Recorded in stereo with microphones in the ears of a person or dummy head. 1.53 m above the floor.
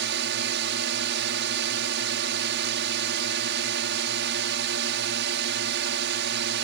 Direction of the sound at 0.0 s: 65° right (ahead or behind).